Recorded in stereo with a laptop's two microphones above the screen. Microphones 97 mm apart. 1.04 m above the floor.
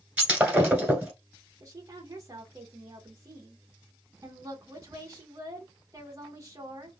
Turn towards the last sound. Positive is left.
turn(degrees=-35)  # may be behind; listen again after turning